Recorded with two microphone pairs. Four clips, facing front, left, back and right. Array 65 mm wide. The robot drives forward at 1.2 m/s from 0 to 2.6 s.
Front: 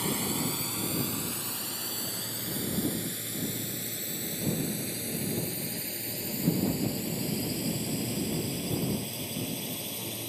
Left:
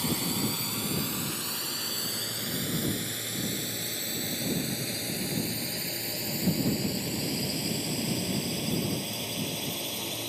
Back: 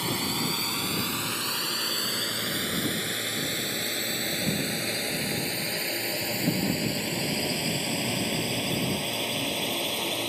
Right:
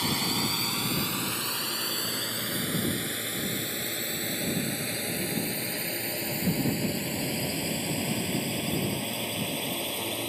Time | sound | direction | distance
0.0 | a drone | 125° right | ?